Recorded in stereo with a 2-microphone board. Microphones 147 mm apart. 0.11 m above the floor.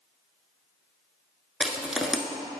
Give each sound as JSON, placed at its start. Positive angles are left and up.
{"t": 1.6, "sound": "crushing", "side_deg": -5, "distance_m": 0.9}